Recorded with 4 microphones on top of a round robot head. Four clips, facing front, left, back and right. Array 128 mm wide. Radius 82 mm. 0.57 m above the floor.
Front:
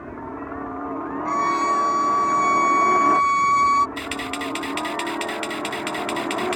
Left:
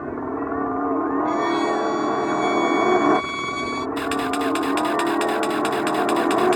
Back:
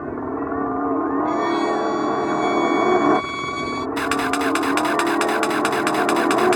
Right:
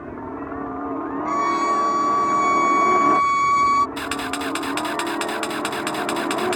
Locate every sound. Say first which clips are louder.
0.0 s a helicopter: left 5 dB, back 7 dB; 145° left
1.2 s a violin: even, back 1 dB; 45° right
4.0 s a camera shutter: left 4 dB, back 8 dB; 175° right